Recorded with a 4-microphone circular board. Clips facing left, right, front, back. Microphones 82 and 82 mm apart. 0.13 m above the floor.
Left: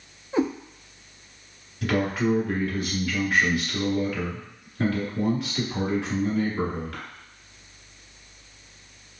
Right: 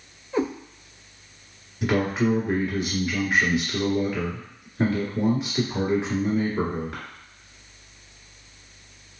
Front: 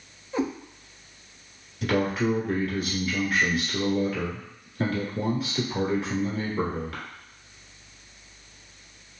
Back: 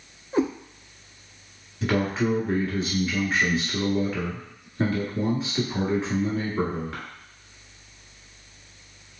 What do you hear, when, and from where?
0.3 s a cat meowing: 155° left, 1.3 m
1.8 s a man speaking: 145° right, 1.5 m